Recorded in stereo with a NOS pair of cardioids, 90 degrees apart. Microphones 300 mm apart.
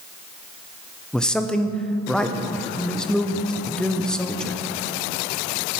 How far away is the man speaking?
About 1.1 m.